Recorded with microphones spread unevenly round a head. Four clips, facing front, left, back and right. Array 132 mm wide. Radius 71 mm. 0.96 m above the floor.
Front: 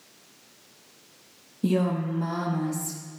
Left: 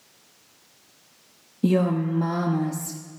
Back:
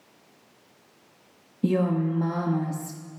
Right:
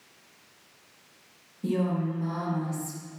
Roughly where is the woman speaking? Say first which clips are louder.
Left 6 dB, back 1 dB; left.